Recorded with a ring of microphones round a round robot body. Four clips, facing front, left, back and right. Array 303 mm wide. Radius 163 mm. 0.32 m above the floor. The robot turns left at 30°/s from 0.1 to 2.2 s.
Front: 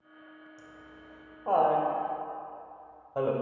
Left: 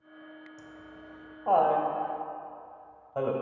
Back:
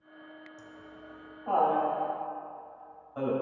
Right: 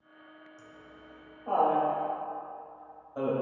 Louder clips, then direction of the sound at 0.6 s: Left 4 dB, back 2 dB; 90° left.